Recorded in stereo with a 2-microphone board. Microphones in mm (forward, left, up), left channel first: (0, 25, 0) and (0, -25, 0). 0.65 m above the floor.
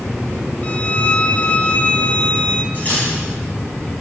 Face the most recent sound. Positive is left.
turn(degrees=40)  # may be behind; listen again after turning